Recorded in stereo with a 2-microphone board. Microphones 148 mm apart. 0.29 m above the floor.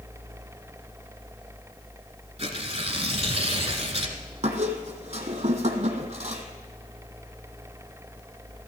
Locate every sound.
2.4 s tearing paper: 45° right (ahead or behind), 1.6 m
4.4 s a squeak: 55° right (ahead or behind), 1.5 m